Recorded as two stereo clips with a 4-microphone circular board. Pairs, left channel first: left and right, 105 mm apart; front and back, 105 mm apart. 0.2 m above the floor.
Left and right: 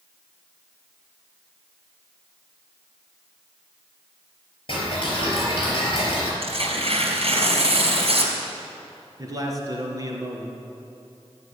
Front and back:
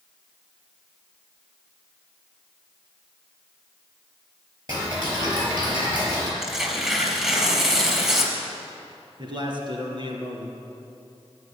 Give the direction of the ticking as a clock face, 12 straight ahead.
8 o'clock.